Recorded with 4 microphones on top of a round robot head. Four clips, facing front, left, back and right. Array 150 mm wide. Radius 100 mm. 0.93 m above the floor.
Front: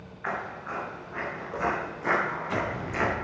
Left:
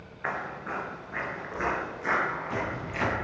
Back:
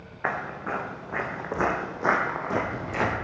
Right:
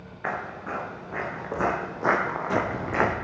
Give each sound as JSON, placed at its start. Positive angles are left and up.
{"t": 0.2, "sound": "footsteps", "azimuth_deg": -165, "distance_m": 4.0}